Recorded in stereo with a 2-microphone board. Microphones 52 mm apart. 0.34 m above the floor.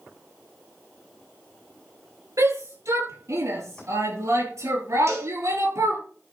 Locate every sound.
2.4 s a shout: 80° right, 9.5 m
5.1 s a cowbell: 60° right (ahead or behind), 3 m